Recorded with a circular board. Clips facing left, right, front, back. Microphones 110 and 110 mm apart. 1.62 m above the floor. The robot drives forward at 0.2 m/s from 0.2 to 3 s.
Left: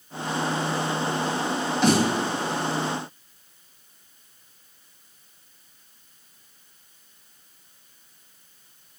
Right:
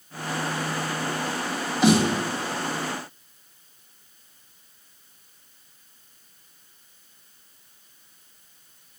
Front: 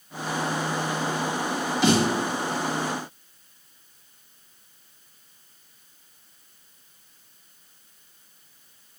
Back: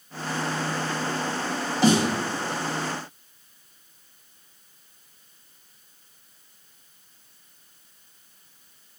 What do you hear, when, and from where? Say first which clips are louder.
1.8 s a snare drum: right 2 dB, back 1 dB; 175° right, 1.8 m